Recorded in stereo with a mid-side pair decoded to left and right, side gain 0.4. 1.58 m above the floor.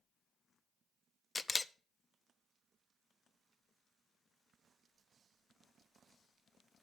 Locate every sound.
1.4 s a camera shutter: 30° left, 0.6 m